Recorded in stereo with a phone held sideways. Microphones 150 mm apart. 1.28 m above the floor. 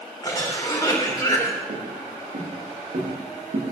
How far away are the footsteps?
About 7.5 m.